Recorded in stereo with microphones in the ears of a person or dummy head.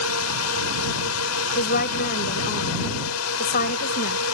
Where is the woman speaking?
45° left (ahead or behind).